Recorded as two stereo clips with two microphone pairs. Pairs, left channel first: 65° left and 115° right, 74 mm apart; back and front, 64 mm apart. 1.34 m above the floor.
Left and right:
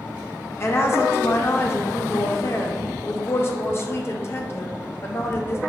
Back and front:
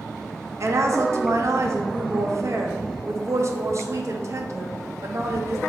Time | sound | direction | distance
0.6 | a woman speaking | 20° left | 0.6 m